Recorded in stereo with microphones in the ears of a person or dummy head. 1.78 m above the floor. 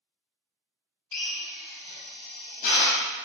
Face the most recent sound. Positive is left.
turn(degrees=50)  # may be behind; listen again after turning